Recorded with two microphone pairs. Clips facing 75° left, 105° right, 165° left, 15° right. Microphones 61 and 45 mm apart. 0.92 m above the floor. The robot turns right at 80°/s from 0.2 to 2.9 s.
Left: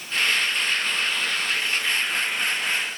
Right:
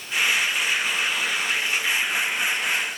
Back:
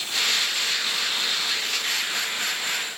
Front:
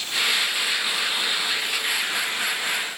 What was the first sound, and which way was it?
Only background noise.